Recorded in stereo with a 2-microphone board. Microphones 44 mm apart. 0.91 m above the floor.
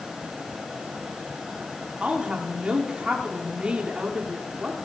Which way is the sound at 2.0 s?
25° right (ahead or behind).